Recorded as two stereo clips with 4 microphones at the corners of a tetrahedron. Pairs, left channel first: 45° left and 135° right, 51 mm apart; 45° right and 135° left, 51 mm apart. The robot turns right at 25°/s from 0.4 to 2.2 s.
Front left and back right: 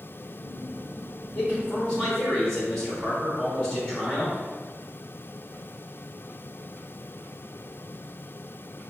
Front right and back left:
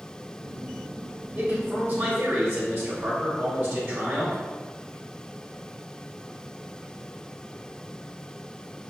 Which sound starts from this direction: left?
A man speaking, at 1.4 s.